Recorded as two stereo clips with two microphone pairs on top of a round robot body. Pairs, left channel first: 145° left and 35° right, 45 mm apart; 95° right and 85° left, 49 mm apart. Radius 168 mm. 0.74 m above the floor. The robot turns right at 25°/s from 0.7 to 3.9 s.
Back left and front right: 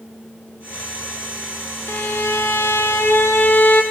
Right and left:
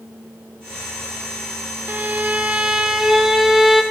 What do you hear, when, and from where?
1.9 s a violin: 130° left, 1.4 m; by 3.8 s 175° left, 1.4 m